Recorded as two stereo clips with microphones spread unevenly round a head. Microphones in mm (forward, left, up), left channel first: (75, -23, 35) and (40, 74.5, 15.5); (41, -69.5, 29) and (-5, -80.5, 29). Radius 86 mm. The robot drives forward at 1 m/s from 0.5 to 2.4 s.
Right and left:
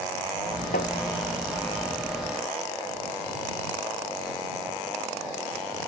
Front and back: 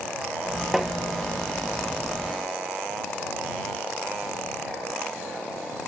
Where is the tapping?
85° right; by 0.9 s 95° right.